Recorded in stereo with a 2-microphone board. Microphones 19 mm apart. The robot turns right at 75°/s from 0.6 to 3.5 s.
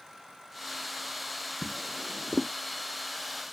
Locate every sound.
1.6 s a drawer: 10° right (ahead or behind); by 2.5 s 80° right